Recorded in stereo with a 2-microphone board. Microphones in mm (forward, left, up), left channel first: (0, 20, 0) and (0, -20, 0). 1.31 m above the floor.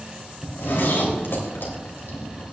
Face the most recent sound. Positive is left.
turn(degrees=60)  # may be behind; listen again after turning